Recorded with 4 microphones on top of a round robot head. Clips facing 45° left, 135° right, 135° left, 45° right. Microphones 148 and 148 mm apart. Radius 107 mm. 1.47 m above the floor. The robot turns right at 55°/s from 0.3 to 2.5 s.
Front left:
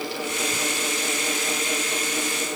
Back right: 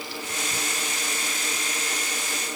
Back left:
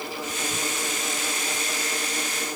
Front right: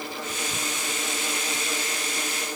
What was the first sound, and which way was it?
Only background noise.